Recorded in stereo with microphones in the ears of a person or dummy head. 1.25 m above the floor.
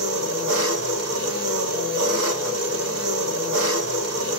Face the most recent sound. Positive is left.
turn(degrees=-60)  # may be behind; listen again after turning